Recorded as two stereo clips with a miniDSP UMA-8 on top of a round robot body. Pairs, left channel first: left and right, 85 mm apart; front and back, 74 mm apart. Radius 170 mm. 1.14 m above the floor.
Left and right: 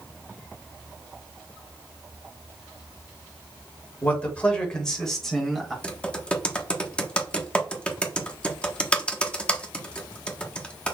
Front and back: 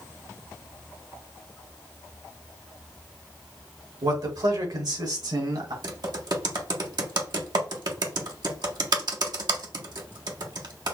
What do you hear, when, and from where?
4.0 s a man speaking: 160° left, 3 m; by 5.7 s straight behind, 4 m
5.8 s typing on a keyboard: 165° left, 1.5 m